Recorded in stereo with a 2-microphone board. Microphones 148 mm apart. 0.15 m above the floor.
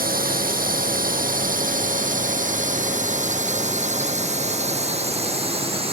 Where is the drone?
75° right (ahead or behind); by 5.9 s 40° right (ahead or behind).